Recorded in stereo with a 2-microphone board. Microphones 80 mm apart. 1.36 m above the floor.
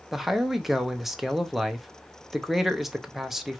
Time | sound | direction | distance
0.1 | a man speaking | centre (ahead or behind) | 0.7 m